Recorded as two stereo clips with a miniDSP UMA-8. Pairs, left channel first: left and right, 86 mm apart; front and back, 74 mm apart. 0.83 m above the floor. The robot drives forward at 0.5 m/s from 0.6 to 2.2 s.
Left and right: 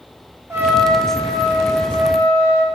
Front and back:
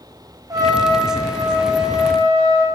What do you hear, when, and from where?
0.5 s a trumpet: 150° right, 0.7 m; by 2.6 s 165° right, 1.4 m